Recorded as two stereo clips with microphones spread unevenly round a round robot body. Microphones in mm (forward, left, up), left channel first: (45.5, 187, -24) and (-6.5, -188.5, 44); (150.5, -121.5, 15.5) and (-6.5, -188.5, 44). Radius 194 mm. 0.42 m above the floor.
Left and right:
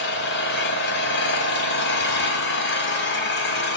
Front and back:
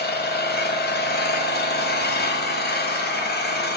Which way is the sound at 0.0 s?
25° left.